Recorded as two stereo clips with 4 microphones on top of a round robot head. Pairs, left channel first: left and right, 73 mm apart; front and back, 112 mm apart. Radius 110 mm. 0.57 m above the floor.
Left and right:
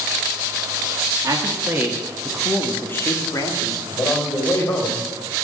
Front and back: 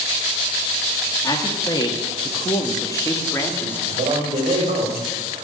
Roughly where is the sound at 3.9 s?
Behind left.